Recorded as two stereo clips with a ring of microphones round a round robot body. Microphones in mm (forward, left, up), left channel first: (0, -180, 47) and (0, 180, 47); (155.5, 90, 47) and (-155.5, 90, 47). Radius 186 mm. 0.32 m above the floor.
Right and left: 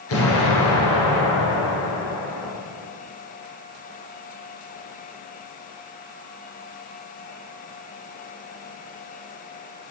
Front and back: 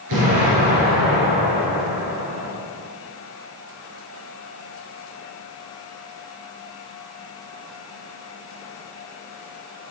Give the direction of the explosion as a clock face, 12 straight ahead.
5 o'clock.